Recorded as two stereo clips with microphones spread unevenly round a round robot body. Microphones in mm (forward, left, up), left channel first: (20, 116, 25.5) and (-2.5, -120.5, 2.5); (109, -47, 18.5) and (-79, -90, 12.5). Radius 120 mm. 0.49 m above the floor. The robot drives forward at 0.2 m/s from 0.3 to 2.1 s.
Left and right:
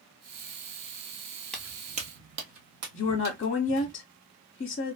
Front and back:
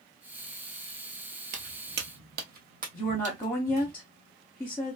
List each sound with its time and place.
1.5 s footsteps: 165° left, 0.6 m; by 3.9 s 115° right, 1.9 m
2.9 s a woman speaking: 85° left, 0.8 m